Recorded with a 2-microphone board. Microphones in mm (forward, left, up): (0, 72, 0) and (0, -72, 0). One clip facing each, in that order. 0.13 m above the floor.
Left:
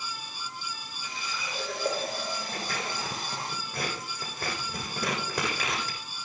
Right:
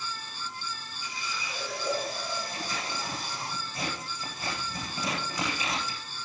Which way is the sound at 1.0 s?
50° left (ahead or behind).